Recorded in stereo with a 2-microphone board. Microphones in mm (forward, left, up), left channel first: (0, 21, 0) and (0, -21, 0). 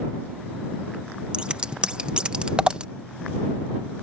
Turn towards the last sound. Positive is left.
turn(degrees=-20)  # may be behind; listen again after turning